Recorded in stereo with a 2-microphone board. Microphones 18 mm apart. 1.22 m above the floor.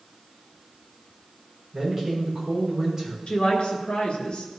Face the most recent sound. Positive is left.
turn(degrees=70)  # may be behind; listen again after turning